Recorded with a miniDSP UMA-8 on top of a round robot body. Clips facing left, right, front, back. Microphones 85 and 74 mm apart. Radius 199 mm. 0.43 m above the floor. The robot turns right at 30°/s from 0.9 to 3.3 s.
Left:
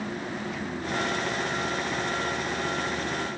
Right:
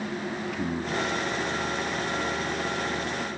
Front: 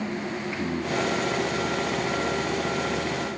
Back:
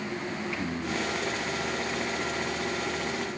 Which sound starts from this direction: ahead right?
Singing, at 0.5 s.